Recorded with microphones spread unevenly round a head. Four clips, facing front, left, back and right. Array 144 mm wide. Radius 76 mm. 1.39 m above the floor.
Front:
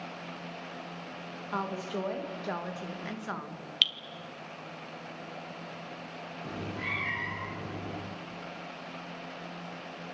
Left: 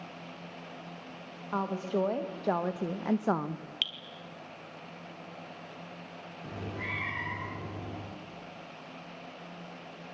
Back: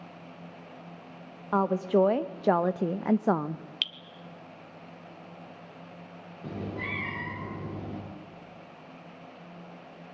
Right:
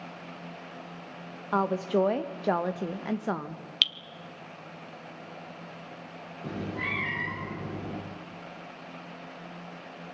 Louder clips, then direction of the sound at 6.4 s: Right 5 dB, back 3 dB; 135° right.